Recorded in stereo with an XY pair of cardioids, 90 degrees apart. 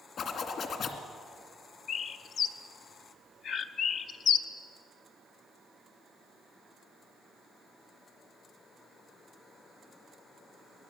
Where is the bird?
70° left, 1.0 m.